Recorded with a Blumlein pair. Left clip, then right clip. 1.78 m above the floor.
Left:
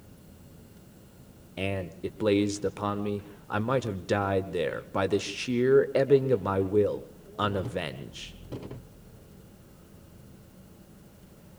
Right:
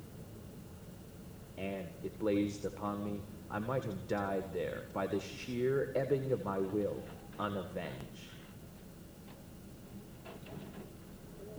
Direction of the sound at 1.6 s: 40° left.